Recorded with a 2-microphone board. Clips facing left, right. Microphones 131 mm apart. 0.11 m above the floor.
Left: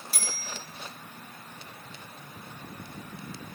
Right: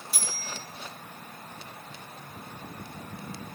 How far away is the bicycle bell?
About 5 m.